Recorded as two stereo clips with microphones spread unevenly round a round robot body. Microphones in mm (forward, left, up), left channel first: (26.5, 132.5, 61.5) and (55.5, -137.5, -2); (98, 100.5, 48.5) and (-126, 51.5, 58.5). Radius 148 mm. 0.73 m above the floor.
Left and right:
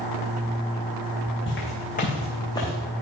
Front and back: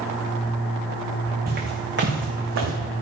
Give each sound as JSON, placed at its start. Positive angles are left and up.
{"t": 1.5, "sound": "footsteps", "azimuth_deg": 145, "distance_m": 4.0}